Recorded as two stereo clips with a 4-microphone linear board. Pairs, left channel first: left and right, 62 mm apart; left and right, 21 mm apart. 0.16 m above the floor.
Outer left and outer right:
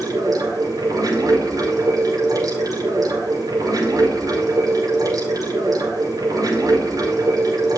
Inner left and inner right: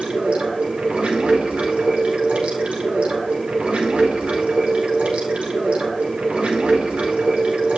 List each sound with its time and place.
0.0 s running water: 80° right, 5 m